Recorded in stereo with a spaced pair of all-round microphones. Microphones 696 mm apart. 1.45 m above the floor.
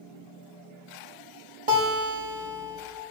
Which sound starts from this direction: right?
A guitar, at 1.7 s.